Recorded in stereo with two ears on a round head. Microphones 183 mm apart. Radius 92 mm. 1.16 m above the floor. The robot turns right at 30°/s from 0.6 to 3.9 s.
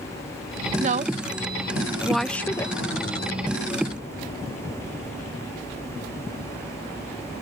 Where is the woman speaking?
35° right (ahead or behind); by 2.7 s 20° left (ahead or behind).